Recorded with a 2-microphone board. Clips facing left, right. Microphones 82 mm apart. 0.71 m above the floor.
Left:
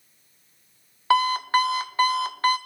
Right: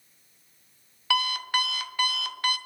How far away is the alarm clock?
About 0.6 m.